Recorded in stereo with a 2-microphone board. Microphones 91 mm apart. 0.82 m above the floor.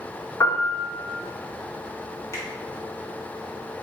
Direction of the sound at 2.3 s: 35° left (ahead or behind).